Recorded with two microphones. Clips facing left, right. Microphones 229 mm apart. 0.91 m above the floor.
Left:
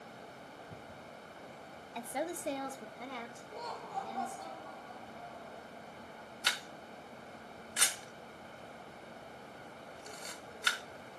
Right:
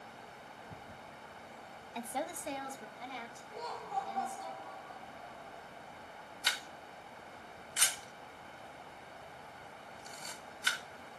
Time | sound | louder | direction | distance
1.9 | a woman speaking | left 2 dB | 5° right (ahead or behind) | 0.6 m
3.5 | laughter | right 3 dB | 55° left (ahead or behind) | 2.5 m
6.4 | a camera shutter | left 2 dB | 65° left (ahead or behind) | 1.0 m